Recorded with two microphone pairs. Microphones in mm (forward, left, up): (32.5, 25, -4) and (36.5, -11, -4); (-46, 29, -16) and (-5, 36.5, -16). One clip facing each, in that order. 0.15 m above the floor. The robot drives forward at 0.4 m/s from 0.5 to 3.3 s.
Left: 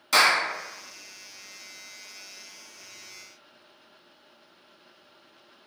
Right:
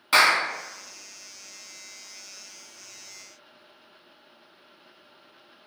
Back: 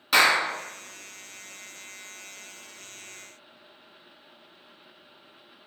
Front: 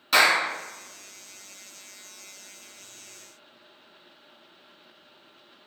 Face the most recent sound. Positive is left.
turn(degrees=-160)